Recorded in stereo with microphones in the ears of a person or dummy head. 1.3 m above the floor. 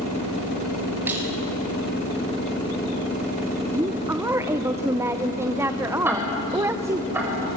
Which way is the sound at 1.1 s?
10° right (ahead or behind).